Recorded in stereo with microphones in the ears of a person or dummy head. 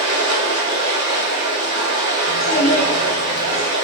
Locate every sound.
0.0 s running water: 45° right (ahead or behind), 1.5 m
2.3 s a child speaking: 45° left (ahead or behind), 1.1 m